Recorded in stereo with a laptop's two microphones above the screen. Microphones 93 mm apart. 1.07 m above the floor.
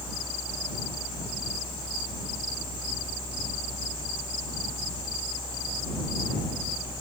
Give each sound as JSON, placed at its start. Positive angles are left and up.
{"t": 0.0, "sound": "a fan", "side_deg": 60}